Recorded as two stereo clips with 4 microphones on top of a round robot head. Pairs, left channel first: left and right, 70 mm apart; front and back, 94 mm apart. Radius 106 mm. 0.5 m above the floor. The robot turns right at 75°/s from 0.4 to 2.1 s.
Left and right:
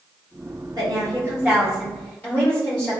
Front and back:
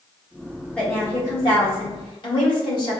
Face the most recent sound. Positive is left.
turn(degrees=20)